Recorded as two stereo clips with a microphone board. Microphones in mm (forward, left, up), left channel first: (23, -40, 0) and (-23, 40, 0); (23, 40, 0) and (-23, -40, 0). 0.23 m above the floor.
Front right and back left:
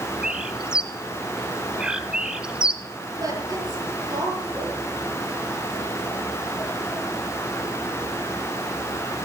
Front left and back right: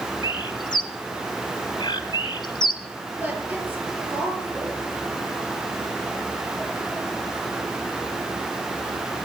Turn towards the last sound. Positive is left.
turn(degrees=170)